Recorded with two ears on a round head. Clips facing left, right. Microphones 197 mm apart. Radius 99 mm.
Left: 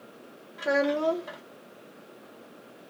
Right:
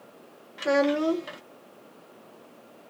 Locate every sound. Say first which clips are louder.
0.6 s a child speaking: right 2 dB; 35° right (ahead or behind), 0.7 m